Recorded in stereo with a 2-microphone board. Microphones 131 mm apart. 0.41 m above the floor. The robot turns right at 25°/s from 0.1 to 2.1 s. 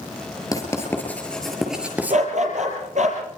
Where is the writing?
25° left (ahead or behind), 7 m; by 2.2 s 15° right (ahead or behind), 7 m.